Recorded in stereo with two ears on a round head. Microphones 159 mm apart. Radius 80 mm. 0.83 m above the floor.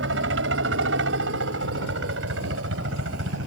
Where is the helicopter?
75° right (ahead or behind).